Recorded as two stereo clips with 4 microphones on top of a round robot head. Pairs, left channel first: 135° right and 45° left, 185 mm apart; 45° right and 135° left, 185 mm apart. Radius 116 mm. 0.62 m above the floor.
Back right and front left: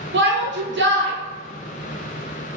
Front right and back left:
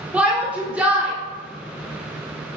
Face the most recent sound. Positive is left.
turn(degrees=55)